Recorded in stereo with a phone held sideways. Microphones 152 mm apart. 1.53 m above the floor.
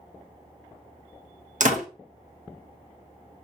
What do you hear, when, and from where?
1.6 s a door slam: 55° right (ahead or behind), 1.1 m